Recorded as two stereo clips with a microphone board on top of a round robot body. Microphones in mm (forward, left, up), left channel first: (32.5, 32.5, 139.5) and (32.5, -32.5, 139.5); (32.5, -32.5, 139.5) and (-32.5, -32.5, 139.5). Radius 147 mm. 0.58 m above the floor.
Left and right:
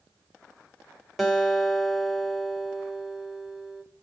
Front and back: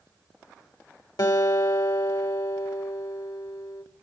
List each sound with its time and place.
1.2 s a guitar: straight ahead, 2.5 m